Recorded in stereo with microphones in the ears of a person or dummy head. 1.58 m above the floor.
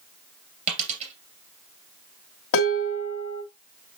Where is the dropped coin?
40° right (ahead or behind), 2.5 m.